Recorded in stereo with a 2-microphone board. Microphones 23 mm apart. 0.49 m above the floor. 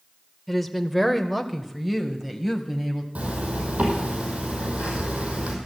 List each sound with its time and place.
0.5 s a woman speaking: centre (ahead or behind), 1.4 m; by 3.0 s 10° right (ahead or behind), 3 m
3.1 s a zipper: 85° right, 5 m